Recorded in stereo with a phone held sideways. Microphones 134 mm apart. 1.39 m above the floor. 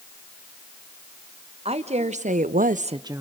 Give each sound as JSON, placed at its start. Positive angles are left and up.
{"t": 1.6, "sound": "a woman speaking", "side_deg": -50, "distance_m": 1.5}